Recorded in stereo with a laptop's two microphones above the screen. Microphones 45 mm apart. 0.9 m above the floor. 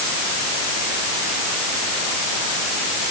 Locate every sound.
Only background noise.